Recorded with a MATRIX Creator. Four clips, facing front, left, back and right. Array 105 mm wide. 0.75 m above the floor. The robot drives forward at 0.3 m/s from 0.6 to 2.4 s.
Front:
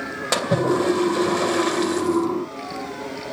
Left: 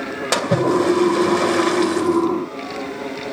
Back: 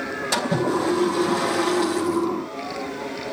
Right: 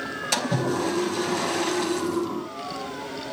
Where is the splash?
70° left, 3 m; by 2.3 s 80° left, 3 m.